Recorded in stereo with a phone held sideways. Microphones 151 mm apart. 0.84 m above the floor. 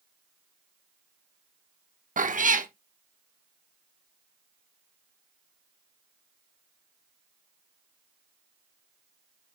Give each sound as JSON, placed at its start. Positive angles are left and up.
{"t": 2.2, "sound": "a cat meowing", "side_deg": -60, "distance_m": 0.9}